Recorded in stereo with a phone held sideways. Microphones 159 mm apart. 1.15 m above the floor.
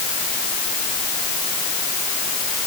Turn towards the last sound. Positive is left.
No sound to turn to.